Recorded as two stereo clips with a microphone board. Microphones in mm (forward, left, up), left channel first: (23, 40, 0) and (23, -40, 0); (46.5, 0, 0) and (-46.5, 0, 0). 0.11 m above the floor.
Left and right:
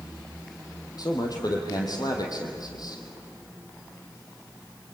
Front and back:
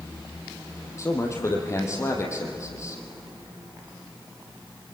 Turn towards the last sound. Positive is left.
turn(degrees=55)